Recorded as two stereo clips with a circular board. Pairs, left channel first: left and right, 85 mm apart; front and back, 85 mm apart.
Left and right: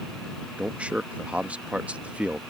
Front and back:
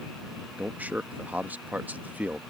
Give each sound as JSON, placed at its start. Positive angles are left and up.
{"t": 0.6, "sound": "a man speaking", "azimuth_deg": -140}